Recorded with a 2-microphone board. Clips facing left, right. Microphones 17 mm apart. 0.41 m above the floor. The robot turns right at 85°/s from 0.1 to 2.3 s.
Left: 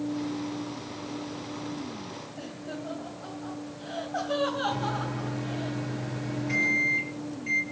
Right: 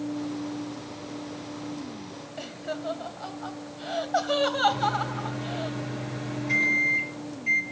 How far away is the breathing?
No breathing in this recording.